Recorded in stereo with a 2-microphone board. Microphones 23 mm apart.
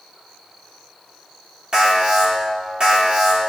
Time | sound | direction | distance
1.7 | an alarm | 35° right (ahead or behind) | 4.5 m